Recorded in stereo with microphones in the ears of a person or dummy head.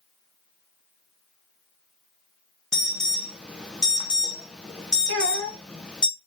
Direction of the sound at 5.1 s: 65° right (ahead or behind).